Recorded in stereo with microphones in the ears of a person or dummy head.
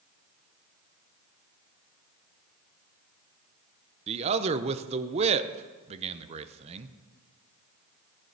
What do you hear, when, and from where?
4.1 s a man speaking: 30° right (ahead or behind), 0.7 m